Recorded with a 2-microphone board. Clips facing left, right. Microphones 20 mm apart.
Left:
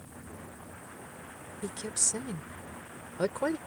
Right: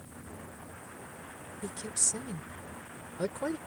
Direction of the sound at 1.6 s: 30° left (ahead or behind).